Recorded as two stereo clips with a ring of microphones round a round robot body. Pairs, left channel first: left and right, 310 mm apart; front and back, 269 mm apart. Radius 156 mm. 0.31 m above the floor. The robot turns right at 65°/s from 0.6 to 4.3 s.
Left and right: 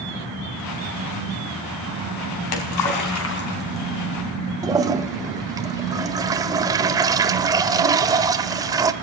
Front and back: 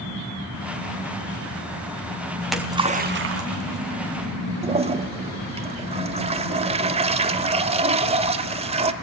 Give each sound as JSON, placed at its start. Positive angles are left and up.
{"t": 2.4, "sound": "a splash", "azimuth_deg": 80, "distance_m": 3.5}
{"t": 4.6, "sound": "a toilet flushing", "azimuth_deg": -150, "distance_m": 1.3}